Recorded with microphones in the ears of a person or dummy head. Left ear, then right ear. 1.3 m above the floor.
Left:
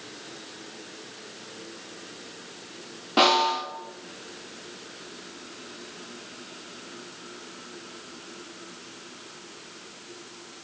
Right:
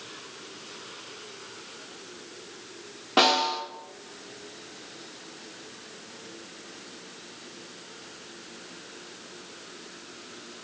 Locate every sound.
3.2 s a snare drum: 25° right (ahead or behind), 1.8 m